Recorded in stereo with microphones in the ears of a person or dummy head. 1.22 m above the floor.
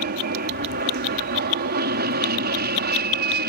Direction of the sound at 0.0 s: 50° right (ahead or behind).